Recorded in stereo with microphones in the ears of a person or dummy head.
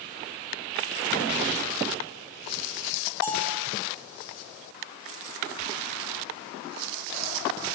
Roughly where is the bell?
Left.